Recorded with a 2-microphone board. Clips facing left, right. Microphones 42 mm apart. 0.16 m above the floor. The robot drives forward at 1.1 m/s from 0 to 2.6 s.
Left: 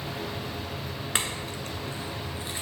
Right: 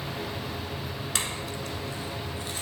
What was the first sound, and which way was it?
A clink, 30° left (ahead or behind).